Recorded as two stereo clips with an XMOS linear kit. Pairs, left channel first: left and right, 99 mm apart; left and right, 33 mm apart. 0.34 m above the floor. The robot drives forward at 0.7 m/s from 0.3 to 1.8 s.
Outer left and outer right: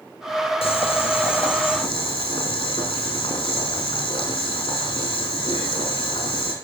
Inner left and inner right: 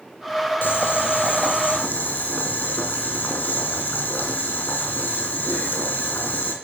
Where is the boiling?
70° left (ahead or behind), 2.5 m; by 6.5 s 55° left (ahead or behind), 2.5 m.